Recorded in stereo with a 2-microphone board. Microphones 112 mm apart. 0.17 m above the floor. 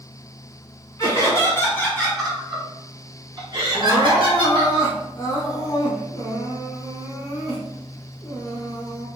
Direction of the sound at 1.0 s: 35° left (ahead or behind).